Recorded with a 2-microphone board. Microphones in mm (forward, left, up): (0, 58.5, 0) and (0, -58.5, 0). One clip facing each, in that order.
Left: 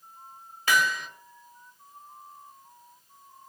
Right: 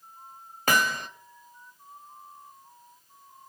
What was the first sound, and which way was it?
Hammering, 50° right (ahead or behind).